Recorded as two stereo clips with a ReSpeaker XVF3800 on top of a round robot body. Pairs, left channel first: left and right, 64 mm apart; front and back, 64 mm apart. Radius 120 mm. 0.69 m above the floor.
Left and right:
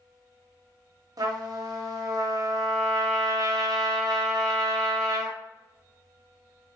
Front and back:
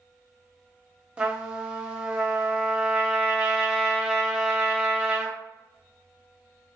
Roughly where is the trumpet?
Right.